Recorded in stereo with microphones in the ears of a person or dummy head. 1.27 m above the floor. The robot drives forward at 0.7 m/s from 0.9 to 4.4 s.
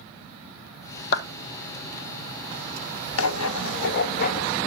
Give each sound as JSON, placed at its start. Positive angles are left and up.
{"t": 1.1, "sound": "a clap", "side_deg": 55, "distance_m": 1.3}
{"t": 3.2, "sound": "writing", "side_deg": 85, "distance_m": 1.0}